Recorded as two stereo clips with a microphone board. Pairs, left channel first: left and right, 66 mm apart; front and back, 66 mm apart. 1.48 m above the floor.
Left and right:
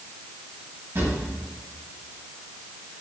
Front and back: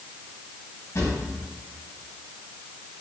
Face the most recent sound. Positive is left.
turn(degrees=-45)